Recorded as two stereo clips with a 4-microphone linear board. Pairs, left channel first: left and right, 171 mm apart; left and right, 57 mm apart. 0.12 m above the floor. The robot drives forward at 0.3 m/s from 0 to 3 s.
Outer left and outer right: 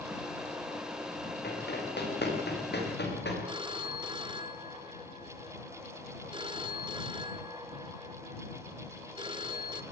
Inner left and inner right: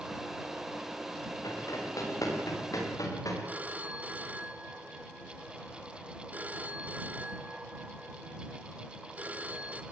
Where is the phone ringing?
30° right (ahead or behind), 0.9 m.